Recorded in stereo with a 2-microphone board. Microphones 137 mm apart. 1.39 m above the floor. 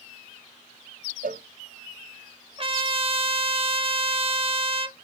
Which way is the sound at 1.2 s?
85° right.